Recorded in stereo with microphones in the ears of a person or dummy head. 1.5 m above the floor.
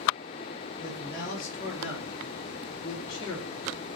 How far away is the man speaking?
About 2 m.